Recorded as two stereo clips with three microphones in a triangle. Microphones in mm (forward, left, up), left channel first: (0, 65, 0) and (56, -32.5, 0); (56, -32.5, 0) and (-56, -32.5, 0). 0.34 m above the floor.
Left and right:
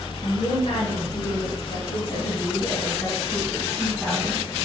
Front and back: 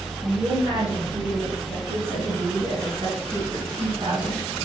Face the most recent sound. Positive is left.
turn(degrees=-130)